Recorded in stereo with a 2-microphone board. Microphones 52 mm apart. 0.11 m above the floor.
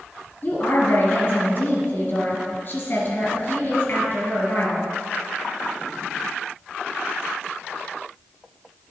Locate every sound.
0.4 s a woman speaking: 40° left (ahead or behind), 2 m